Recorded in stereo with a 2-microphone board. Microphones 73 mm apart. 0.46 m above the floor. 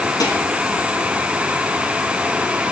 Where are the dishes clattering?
80° left, 4.5 m.